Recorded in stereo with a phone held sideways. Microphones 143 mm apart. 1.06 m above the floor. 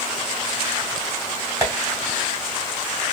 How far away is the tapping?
About 2 m.